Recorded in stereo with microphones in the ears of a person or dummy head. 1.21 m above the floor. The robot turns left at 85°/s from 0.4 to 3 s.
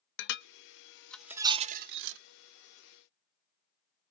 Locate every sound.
0.2 s dishes clattering: 60° left (ahead or behind), 0.7 m; by 2.2 s 70° right (ahead or behind), 0.7 m